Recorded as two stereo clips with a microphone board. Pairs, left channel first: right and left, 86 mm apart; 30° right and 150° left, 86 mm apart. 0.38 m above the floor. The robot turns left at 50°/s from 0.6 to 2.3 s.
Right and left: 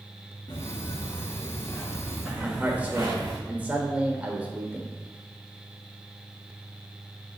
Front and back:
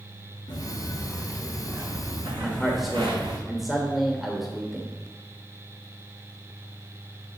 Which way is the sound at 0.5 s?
65° right.